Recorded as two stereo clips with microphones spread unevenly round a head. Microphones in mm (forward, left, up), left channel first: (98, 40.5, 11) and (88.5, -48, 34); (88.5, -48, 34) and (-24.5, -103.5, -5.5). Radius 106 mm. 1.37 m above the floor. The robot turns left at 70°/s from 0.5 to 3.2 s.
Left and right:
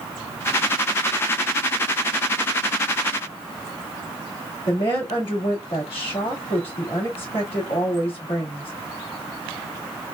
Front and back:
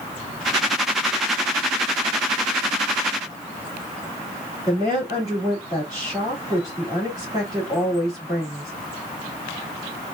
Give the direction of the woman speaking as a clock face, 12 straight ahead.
8 o'clock.